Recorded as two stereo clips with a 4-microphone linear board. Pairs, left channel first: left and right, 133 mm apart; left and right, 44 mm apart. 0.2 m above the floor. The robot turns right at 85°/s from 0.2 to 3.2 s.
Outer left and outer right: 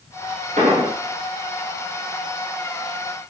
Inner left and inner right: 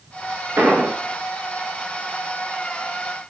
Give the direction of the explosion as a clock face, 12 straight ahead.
3 o'clock.